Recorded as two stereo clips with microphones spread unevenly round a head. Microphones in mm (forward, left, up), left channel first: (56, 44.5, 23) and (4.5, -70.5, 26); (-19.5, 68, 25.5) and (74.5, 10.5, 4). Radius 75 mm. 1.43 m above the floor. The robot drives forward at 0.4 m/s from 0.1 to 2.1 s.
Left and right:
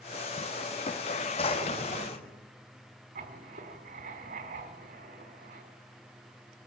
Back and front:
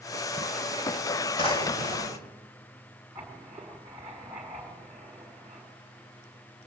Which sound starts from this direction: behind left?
A drawer, at 1.4 s.